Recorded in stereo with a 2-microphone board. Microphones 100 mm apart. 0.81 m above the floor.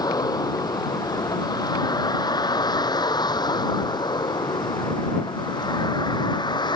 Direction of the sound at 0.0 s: 40° left (ahead or behind).